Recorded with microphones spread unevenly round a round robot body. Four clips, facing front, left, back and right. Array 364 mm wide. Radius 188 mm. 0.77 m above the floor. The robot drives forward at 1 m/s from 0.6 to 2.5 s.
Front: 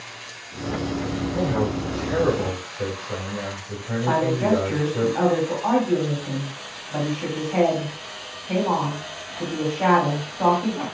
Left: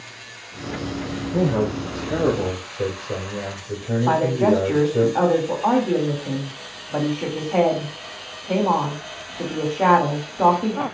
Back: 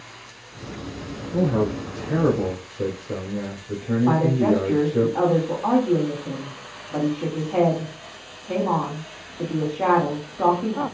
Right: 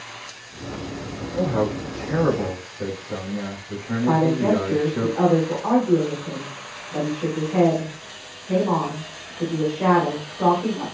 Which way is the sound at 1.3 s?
135° left.